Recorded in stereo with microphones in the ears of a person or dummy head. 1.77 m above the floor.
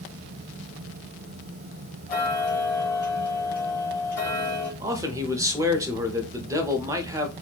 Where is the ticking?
10° left (ahead or behind), 2.0 m.